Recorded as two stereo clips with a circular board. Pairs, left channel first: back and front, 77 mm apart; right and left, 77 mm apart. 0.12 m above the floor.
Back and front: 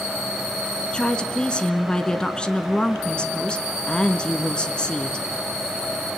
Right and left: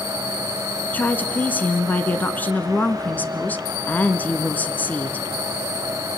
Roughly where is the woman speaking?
Behind right.